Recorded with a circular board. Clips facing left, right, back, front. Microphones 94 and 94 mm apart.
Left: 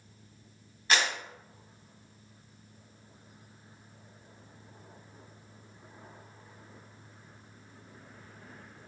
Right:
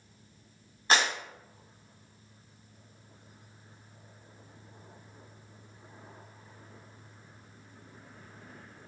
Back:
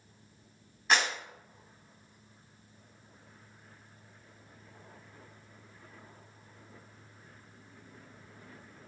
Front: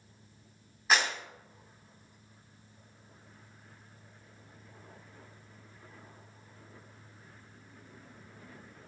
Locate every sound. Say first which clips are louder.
0.9 s a clap: right 2 dB, even; 85° right, 0.9 m